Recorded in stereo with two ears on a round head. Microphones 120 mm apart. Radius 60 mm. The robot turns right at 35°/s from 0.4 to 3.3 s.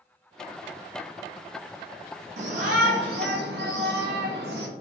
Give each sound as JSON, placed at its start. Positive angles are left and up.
{"t": 2.4, "sound": "a shout", "azimuth_deg": -120, "distance_m": 1.5}